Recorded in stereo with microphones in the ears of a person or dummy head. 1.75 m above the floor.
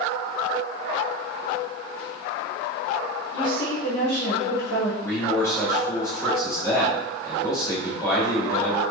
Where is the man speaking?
20° left (ahead or behind), 1.6 m.